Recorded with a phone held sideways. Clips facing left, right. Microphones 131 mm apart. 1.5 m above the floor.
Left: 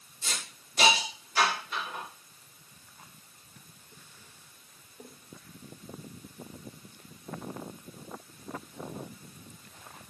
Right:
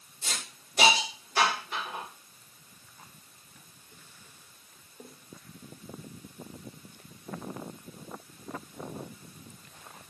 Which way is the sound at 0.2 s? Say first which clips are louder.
Even; 60° right (ahead or behind).